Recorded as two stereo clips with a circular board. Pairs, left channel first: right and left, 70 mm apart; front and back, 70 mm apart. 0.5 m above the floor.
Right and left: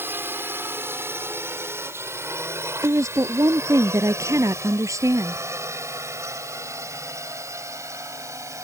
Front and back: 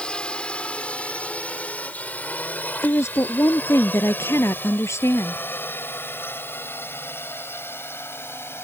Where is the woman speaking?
50° left.